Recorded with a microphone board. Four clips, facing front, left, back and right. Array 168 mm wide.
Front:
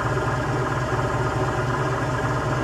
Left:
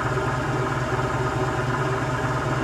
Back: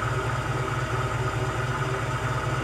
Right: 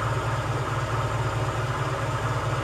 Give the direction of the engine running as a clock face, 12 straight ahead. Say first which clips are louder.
Left 4 dB, front 5 dB; 11 o'clock.